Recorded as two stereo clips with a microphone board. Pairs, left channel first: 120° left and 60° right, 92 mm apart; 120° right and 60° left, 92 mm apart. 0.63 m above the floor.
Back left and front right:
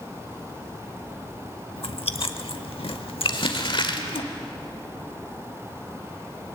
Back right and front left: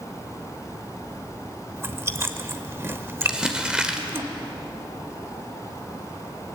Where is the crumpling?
140° left, 1.7 m.